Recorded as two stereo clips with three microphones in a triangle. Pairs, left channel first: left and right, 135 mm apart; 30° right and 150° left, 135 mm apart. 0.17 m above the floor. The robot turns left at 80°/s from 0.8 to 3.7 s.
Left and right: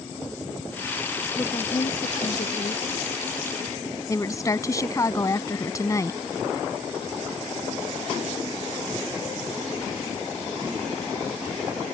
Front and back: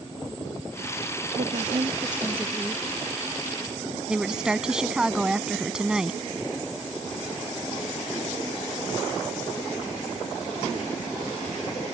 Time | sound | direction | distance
1.4 | a woman speaking | 160° left | ?
4.1 | a woman speaking | 75° left | ?